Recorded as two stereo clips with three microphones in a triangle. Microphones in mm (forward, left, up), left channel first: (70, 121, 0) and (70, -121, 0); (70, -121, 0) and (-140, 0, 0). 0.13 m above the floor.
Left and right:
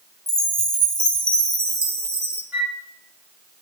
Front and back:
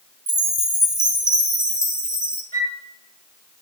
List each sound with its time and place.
0.3 s a chime: 145° right, 0.8 m
2.5 s a flute: 170° right, 2 m